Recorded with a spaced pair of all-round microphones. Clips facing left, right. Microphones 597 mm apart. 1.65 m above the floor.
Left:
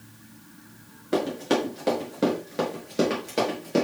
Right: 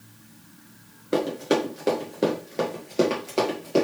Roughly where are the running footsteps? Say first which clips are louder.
Right 1 dB; centre.